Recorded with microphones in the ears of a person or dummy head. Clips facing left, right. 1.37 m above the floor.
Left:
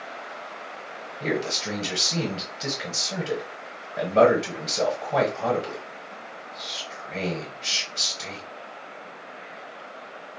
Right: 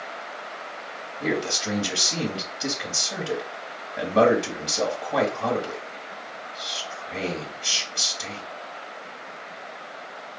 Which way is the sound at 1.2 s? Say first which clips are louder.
Right 1 dB; 5° left (ahead or behind).